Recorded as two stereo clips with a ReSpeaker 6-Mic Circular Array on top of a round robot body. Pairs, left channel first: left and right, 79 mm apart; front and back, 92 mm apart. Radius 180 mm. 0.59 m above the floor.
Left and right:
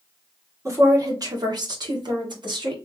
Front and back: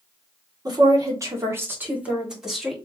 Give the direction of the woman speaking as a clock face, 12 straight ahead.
5 o'clock.